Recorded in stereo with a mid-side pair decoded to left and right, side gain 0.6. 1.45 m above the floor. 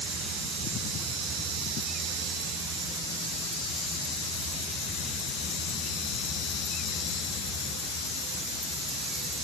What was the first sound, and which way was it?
Only background noise.